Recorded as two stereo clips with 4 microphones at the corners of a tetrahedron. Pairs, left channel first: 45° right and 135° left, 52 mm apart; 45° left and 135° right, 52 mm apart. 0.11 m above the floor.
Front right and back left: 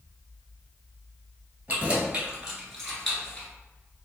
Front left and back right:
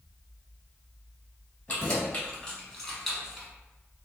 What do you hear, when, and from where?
1.7 s keys jangling: 90° left, 1.1 m; by 3.5 s 60° right, 0.9 m